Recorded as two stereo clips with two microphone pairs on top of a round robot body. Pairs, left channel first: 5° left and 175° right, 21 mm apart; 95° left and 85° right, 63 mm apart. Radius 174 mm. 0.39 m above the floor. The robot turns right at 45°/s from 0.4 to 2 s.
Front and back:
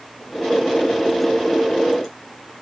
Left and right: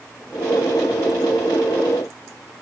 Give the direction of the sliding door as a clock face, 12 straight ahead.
I don't hear a sliding door.